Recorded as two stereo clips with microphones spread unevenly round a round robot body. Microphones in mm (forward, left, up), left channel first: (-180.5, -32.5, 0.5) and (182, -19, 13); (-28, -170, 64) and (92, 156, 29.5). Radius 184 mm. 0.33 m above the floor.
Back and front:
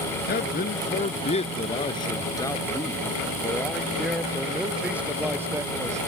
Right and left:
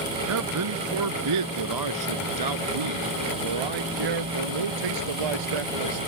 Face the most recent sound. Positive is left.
turn(degrees=85)